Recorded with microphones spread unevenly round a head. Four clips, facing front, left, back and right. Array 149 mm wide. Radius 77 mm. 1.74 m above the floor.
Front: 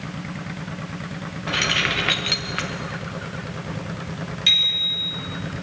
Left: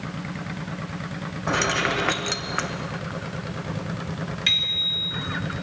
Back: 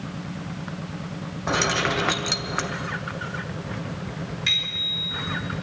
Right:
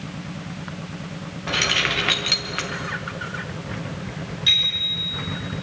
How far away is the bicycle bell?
About 4 m.